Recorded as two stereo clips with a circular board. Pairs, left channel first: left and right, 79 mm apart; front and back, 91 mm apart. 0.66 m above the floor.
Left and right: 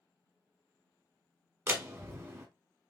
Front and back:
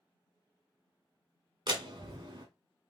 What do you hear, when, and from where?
1.7 s a door slam: 145° right, 1.6 m